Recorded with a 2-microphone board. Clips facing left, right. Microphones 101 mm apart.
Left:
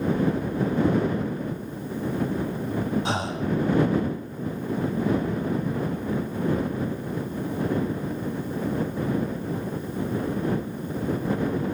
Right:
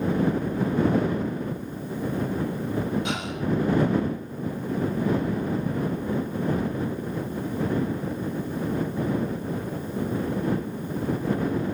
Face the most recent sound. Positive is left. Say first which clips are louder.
# left 1 dB
turn(degrees=35)  # may be behind; listen again after turning